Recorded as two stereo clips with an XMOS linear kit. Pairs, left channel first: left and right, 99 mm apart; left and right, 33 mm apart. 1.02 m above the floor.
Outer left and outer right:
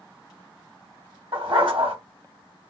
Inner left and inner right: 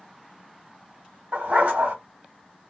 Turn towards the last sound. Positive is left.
turn(degrees=-60)  # may be behind; listen again after turning